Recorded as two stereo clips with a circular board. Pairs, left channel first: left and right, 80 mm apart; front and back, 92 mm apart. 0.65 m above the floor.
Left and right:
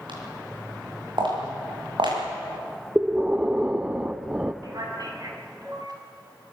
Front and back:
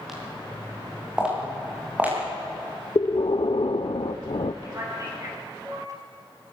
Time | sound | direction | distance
0.1 | footsteps | 95° right | 9.5 m
3.0 | breathing | 15° right | 0.7 m
4.6 | a man speaking | 125° right | 6 m